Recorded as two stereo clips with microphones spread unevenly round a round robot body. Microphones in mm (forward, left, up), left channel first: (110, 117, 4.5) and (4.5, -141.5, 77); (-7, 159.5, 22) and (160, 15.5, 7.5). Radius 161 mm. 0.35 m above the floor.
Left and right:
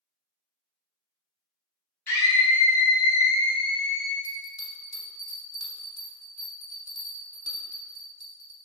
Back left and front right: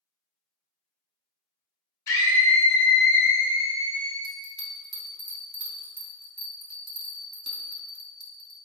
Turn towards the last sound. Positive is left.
turn(degrees=10)